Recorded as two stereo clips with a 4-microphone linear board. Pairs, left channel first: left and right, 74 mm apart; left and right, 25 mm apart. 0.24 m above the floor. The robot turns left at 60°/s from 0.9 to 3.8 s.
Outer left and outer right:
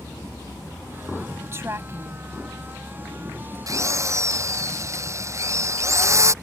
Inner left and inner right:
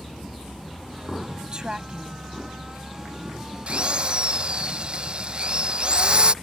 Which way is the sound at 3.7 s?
50° right (ahead or behind).